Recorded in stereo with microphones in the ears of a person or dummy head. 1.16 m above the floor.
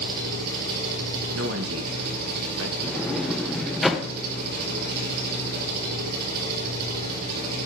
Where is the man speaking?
75° right (ahead or behind), 1.5 m.